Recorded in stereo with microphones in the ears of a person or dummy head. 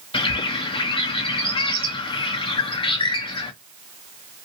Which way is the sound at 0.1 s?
30° left (ahead or behind).